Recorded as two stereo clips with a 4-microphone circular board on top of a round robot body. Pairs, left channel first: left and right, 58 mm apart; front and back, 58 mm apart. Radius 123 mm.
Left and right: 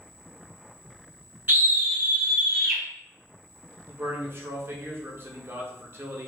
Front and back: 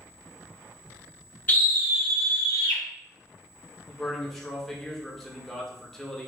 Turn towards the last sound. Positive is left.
turn(degrees=-85)